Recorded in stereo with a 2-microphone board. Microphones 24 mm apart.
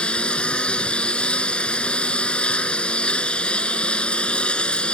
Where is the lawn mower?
55° left (ahead or behind).